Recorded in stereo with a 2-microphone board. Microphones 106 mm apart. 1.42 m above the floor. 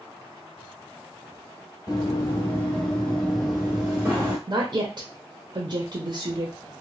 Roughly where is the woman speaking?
Right.